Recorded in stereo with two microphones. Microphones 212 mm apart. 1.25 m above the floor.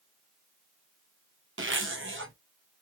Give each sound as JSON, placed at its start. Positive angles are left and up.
{"t": 1.6, "sound": "a zipper", "side_deg": -70, "distance_m": 1.1}